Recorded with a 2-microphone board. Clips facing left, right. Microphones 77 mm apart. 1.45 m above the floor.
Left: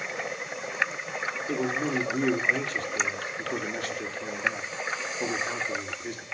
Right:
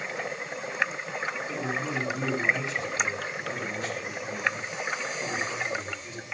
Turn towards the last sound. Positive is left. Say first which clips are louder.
# left 7 dB
turn(degrees=55)  # may be behind; listen again after turning